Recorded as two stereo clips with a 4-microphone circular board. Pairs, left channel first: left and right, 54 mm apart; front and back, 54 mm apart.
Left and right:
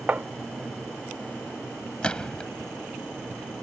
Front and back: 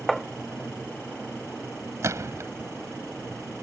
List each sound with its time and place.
0.1 s tapping: 90° right
2.0 s a gunshot: 160° left